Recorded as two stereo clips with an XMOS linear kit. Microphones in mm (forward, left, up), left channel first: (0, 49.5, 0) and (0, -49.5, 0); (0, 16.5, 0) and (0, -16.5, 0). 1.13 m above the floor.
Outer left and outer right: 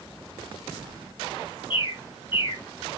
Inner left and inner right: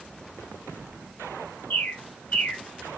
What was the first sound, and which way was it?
A bird, 55° left (ahead or behind).